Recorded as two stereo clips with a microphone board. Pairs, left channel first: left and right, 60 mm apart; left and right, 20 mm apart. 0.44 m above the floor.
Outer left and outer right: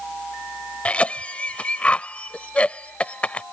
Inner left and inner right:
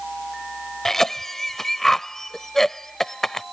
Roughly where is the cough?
Left.